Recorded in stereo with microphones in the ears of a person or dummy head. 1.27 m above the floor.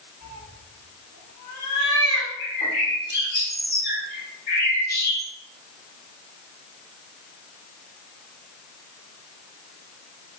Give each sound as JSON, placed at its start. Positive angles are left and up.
{"t": 0.2, "sound": "a cat meowing", "side_deg": 65, "distance_m": 1.4}
{"t": 2.4, "sound": "a bird", "side_deg": 45, "distance_m": 1.1}